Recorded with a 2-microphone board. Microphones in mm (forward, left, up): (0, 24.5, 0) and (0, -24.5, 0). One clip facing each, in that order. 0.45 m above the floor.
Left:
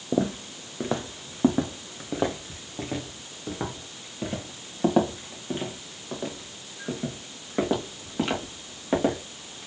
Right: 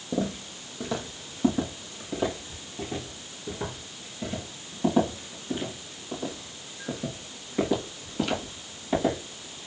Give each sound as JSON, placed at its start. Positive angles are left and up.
{"t": 0.1, "sound": "footsteps", "side_deg": 35, "distance_m": 1.0}